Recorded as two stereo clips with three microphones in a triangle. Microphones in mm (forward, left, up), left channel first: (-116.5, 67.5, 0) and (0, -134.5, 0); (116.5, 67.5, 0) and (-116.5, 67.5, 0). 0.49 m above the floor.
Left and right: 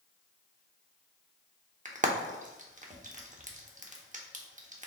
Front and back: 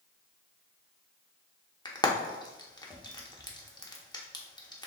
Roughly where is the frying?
Ahead right.